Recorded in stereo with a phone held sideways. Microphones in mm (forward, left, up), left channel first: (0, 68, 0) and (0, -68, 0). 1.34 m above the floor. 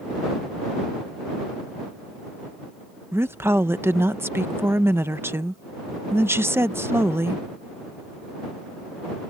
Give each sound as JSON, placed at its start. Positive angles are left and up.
{"t": 3.1, "sound": "a woman speaking", "side_deg": -20}